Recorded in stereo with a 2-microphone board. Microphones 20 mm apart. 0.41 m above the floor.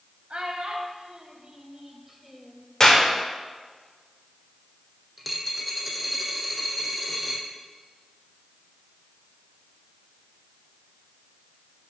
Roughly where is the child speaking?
Right.